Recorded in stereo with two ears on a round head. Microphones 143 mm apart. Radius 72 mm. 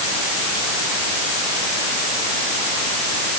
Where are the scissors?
I don't hear scissors.